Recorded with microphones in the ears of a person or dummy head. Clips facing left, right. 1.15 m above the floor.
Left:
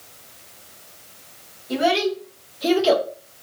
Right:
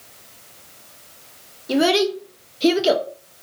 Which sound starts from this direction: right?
A child speaking, at 1.7 s.